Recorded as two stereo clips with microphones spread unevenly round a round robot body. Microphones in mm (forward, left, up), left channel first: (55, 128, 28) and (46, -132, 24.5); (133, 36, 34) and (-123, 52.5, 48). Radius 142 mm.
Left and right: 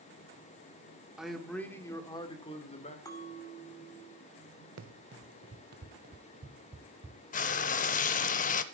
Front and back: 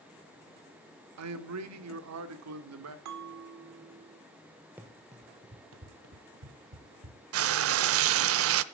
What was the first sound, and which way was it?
A man speaking, straight behind.